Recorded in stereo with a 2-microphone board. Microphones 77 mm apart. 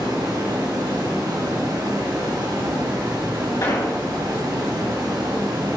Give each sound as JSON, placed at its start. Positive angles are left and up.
{"t": 0.0, "sound": "running water", "side_deg": -60, "distance_m": 1.9}
{"t": 3.6, "sound": "an explosion", "side_deg": 55, "distance_m": 3.5}